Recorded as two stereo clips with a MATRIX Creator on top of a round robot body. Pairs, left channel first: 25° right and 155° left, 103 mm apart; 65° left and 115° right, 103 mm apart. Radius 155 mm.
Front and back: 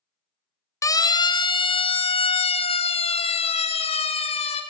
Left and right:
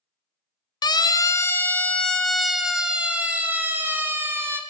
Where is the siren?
30° left, 2 m; by 4.6 s 45° right, 5 m.